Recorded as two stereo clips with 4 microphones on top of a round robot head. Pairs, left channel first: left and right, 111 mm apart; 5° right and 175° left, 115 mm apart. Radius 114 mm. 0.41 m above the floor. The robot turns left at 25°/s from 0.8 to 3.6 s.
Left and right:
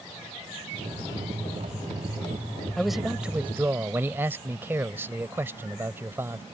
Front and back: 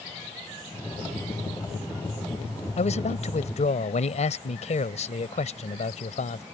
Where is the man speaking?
5° left; by 6.4 s 20° right.